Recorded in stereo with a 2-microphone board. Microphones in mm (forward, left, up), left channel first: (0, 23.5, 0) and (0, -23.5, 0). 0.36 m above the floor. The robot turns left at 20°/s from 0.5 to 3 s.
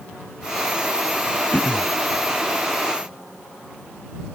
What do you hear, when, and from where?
1.5 s throat clearing: 40° left (ahead or behind); by 1.9 s 50° left (ahead or behind)